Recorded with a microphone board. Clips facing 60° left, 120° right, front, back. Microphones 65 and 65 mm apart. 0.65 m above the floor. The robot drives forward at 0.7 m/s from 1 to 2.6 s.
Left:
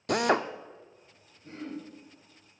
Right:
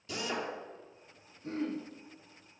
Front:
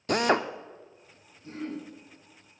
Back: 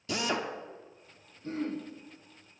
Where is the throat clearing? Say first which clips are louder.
Right 4 dB, back 2 dB; 135° right, 4.5 m.